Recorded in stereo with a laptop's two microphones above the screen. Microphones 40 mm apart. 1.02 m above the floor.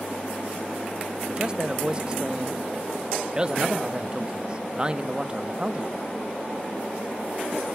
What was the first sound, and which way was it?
A man speaking, 20° right (ahead or behind).